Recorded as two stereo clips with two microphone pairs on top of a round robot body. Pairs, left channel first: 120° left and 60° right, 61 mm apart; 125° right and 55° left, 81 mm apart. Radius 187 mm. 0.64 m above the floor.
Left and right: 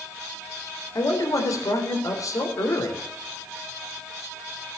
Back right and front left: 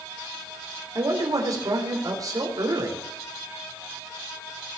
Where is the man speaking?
95° left, 3.5 m.